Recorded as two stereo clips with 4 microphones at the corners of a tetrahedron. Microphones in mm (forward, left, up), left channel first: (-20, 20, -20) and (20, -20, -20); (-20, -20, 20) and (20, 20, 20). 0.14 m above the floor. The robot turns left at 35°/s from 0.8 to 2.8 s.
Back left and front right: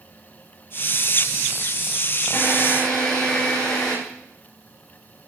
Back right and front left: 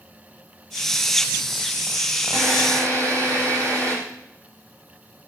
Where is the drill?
70° left, 6 m; by 4.0 s 55° left, 6 m.